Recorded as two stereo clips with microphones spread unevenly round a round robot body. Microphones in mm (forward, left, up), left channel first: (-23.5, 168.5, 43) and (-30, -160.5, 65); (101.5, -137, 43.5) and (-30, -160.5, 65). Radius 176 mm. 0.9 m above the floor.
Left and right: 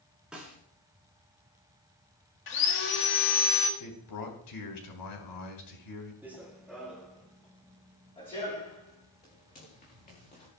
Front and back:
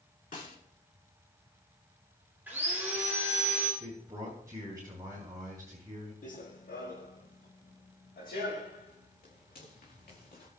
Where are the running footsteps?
10° right, 2 m; by 10.5 s 20° left, 5.5 m.